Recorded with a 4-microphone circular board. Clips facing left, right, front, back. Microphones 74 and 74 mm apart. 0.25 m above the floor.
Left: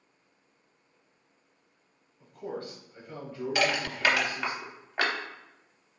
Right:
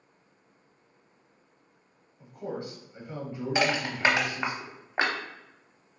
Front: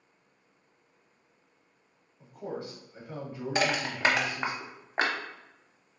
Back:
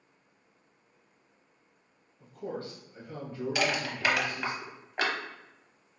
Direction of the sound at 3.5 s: 35° right.